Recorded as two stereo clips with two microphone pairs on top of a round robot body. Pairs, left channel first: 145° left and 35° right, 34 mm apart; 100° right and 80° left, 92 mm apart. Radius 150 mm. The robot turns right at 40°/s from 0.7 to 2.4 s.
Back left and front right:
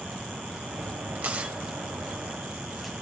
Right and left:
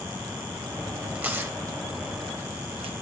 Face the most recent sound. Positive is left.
turn(degrees=55)